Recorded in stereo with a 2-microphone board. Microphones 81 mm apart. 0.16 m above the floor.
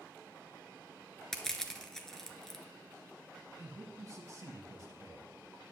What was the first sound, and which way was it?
Crushing, 5° left (ahead or behind).